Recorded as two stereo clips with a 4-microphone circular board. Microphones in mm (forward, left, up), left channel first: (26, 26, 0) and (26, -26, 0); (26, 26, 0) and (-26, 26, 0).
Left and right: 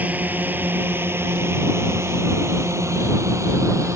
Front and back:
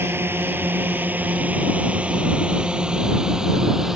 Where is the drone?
145° right; by 4.0 s 100° right.